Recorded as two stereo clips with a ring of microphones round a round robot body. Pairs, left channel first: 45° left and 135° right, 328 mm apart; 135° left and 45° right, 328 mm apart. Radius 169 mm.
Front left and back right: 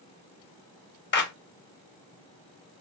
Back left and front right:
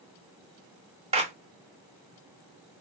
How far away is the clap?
About 1.2 m.